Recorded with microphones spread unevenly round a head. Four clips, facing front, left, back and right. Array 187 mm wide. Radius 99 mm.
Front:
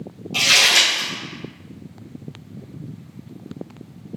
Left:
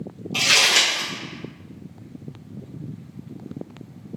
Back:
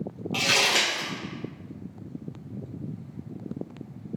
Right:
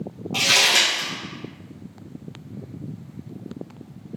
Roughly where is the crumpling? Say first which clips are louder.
Even, front 4 dB; behind right.